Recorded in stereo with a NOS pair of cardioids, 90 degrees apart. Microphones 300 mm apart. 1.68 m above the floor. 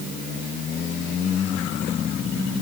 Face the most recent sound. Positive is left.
No sound to turn to.